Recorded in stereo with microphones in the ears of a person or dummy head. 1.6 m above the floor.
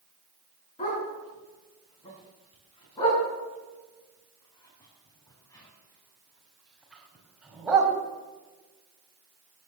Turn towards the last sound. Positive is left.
turn(degrees=-10)  # may be behind; listen again after turning